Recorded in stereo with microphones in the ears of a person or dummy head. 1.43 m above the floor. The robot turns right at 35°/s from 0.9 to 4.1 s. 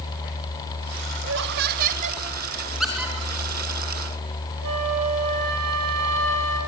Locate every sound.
1.2 s laughter: 75° right, 2 m; by 2.2 s 35° right, 2 m
2.8 s a squeak: centre (ahead or behind), 4.5 m; by 3.1 s 10° right (ahead or behind), 4.5 m
4.6 s a flute: 75° right (ahead or behind), 8.5 m